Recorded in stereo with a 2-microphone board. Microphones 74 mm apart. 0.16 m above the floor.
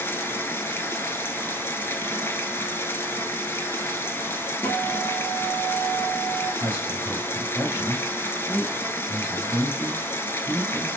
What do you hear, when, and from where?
0.0 s running water: 35° left (ahead or behind), 0.9 m
4.6 s a guitar: 25° left (ahead or behind), 1.6 m
6.6 s a man speaking: 25° right (ahead or behind), 3 m